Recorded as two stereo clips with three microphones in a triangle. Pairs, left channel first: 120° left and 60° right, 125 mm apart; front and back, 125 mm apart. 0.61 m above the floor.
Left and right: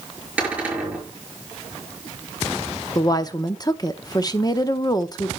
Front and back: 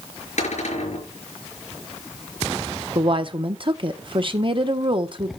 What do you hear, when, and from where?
0.4 s a cupboard door: 20° left, 5.5 m
3.0 s a woman speaking: 165° left, 0.8 m